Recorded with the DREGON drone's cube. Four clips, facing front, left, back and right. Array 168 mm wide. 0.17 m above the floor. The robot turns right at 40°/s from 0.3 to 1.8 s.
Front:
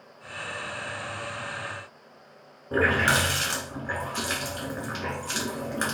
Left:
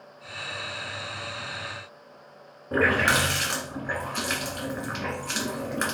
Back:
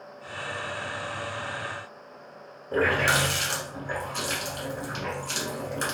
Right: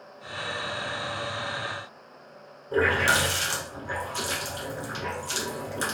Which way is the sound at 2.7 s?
55° left.